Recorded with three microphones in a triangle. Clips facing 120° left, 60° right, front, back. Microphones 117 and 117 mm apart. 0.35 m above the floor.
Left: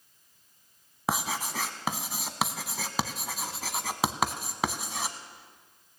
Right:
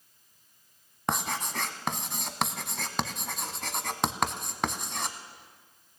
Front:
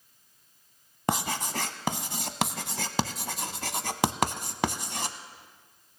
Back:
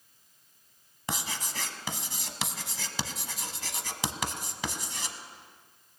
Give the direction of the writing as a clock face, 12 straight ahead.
11 o'clock.